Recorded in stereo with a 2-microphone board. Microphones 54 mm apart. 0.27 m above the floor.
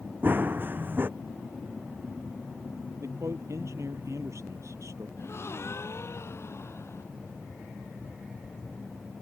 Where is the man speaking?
60° right (ahead or behind).